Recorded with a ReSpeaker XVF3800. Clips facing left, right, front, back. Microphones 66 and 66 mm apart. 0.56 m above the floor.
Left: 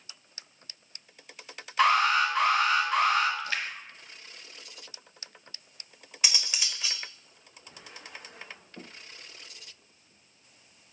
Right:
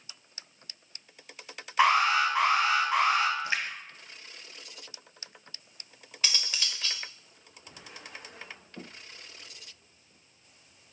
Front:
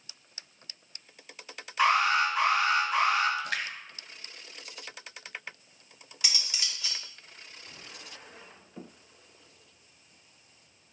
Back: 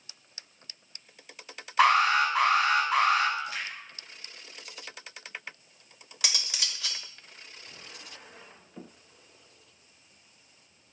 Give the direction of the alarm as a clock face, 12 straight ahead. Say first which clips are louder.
Even, back 2 dB; 5 o'clock.